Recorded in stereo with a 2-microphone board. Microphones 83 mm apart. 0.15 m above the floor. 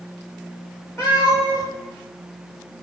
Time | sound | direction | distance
1.0 | a cat meowing | 30° left (ahead or behind) | 3 m